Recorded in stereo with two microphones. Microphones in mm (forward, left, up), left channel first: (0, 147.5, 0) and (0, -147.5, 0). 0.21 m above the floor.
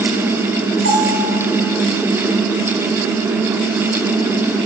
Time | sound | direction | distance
0.8 | a bell | 45° left (ahead or behind) | 6 m